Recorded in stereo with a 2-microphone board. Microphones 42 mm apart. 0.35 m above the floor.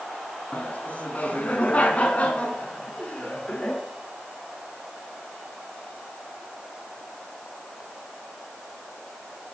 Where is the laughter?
45° left (ahead or behind), 4 m; by 3.8 s 25° left (ahead or behind), 5.5 m.